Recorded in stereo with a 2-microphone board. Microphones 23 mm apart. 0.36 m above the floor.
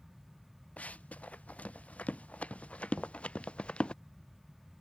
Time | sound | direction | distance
0.8 | running footsteps | 80° left | ?
3.0 | knocking | 10° right (ahead or behind) | ?